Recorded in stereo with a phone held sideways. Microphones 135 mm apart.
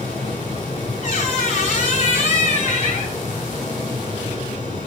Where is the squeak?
85° left, 4 m.